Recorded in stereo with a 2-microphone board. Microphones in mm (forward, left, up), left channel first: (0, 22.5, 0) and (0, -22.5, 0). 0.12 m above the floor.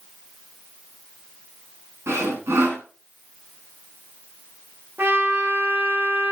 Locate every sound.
2.1 s sawing: 80° right, 4.5 m
5.0 s a trumpet: 55° right (ahead or behind), 3 m